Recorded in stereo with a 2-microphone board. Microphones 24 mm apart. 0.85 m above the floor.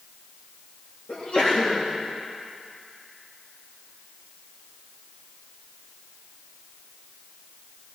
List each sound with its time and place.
1.1 s a sneeze: 45° left (ahead or behind), 1.8 m